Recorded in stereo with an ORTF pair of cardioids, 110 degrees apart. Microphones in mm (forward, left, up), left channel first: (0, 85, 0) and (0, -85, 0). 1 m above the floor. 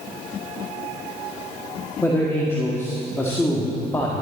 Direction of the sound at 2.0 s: 15° left.